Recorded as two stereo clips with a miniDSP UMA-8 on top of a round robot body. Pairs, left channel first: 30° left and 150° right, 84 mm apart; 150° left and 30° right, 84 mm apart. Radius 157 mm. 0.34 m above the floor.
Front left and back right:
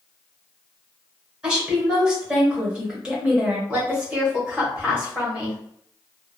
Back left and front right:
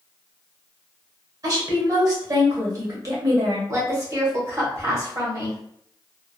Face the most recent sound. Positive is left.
turn(degrees=-75)